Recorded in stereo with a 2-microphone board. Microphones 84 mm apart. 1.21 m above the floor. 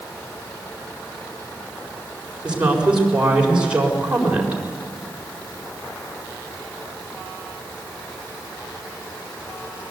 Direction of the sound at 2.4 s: 10° right (ahead or behind).